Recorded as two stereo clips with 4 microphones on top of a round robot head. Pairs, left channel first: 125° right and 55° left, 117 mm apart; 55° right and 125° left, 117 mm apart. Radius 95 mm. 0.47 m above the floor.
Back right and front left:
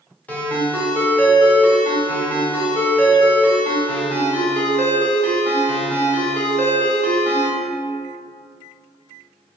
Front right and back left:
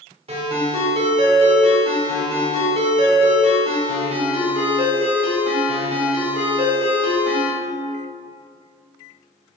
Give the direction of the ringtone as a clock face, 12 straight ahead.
7 o'clock.